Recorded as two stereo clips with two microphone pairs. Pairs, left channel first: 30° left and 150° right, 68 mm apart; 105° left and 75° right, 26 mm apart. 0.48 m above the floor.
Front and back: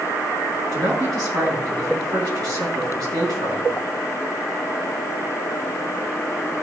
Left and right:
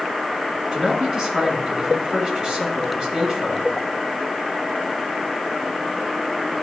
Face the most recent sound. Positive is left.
turn(degrees=-135)